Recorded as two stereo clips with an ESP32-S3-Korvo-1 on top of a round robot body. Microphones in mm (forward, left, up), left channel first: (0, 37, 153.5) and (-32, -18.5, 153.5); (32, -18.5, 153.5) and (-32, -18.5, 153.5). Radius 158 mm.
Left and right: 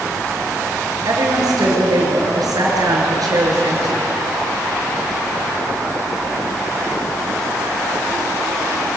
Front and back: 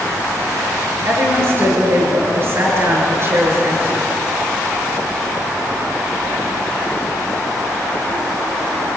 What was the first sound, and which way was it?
A woman speaking, 130° right.